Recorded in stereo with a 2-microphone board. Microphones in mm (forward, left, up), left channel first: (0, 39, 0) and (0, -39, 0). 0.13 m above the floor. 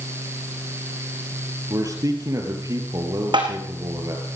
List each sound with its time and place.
1.7 s a man speaking: 50° right (ahead or behind), 3.5 m
3.3 s tapping: 80° right, 3 m